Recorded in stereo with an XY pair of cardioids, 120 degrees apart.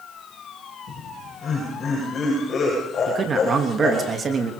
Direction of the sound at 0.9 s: 40° left.